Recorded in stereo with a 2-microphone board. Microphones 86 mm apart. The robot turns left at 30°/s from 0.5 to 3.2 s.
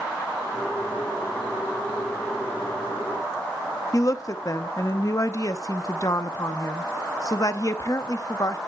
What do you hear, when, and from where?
3.9 s a woman speaking: 40° left (ahead or behind), 0.7 m